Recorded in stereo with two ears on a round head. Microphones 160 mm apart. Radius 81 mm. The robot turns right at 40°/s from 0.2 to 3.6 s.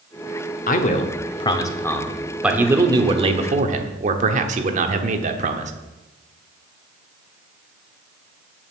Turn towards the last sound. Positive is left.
turn(degrees=-125)